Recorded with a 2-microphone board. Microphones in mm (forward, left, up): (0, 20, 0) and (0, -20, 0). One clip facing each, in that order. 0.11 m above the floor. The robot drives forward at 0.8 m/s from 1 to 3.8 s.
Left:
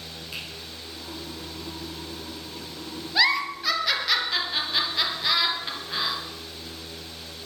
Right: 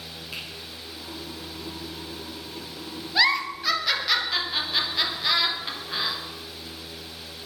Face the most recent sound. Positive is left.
turn(degrees=-5)  # may be behind; listen again after turning